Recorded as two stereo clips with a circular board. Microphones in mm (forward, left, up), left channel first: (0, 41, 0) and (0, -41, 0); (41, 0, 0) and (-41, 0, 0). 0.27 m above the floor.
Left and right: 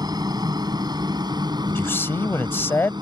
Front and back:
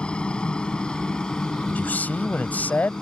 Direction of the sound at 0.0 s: 75° right.